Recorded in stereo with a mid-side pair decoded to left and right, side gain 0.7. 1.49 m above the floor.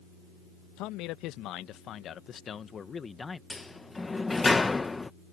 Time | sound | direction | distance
0.8 | a man speaking | 65° left | ?
3.5 | a sliding door | 15° left | ?